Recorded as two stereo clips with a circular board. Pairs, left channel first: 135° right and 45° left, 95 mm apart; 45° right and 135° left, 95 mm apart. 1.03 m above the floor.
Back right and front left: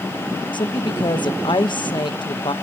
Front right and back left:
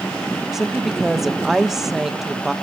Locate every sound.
0.5 s a woman speaking: 140° right, 0.9 m